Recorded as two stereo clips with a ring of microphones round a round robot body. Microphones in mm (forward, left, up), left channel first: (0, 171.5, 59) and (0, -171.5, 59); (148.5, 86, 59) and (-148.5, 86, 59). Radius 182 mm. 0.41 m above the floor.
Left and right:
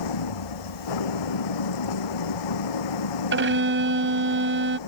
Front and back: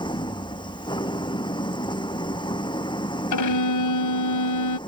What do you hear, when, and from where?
0.0 s an engine running: 75° left
3.3 s a violin: 30° right